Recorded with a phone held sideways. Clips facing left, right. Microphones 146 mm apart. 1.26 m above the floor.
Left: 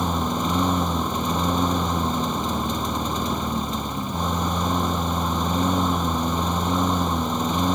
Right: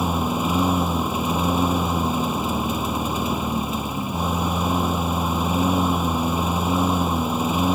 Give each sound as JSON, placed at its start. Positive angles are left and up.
{"t": 0.0, "sound": "a lawn mower", "side_deg": -5}